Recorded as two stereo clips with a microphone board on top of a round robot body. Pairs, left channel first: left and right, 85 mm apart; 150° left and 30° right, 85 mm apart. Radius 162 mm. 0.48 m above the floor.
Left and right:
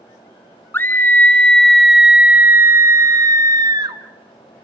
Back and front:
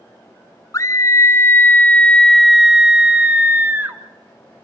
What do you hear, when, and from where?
0.7 s a scream: 140° left, 1.4 m; by 4.0 s 85° right, 1.6 m